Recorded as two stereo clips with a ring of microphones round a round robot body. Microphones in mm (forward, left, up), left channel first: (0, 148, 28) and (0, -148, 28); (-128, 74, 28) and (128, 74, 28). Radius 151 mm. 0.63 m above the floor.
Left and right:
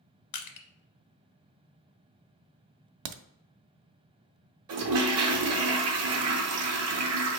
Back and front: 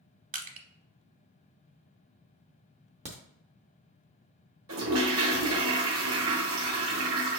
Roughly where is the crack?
Right.